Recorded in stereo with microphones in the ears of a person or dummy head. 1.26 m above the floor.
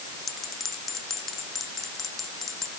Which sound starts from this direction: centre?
A bell, at 0.3 s.